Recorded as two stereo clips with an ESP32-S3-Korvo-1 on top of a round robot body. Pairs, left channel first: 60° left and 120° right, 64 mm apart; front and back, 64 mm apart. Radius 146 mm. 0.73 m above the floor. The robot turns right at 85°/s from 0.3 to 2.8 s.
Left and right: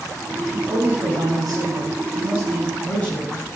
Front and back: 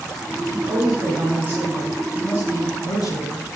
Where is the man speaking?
140° left, 7.5 m; by 3.5 s 10° right, 7.5 m.